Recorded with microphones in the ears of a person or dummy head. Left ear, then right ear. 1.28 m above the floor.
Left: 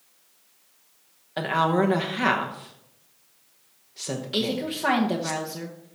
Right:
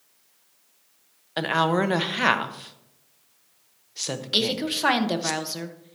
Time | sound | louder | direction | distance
1.4 | a woman speaking | even | 20° right (ahead or behind) | 0.9 m
4.3 | a woman speaking | right 4 dB | 30° right (ahead or behind) | 0.9 m